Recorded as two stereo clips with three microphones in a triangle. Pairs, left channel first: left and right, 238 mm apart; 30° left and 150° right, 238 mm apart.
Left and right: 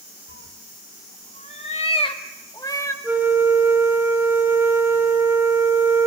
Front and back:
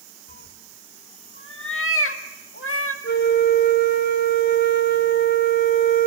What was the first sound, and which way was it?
A cat meowing, 70° left.